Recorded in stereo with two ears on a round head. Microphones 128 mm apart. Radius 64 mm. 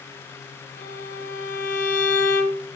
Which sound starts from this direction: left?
A violin, at 0.8 s.